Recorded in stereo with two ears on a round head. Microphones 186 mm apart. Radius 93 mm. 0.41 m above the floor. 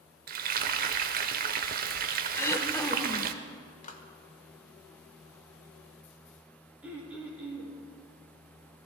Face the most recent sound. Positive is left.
turn(degrees=-5)  # may be behind; listen again after turning